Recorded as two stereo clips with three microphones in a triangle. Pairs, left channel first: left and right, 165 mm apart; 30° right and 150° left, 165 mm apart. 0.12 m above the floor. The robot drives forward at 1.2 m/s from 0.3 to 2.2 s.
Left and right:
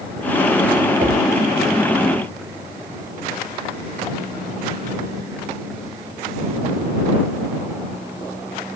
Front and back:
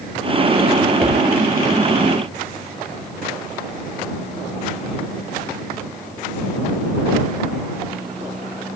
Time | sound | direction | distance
1.0 | a whoosh | 135° right | 6 m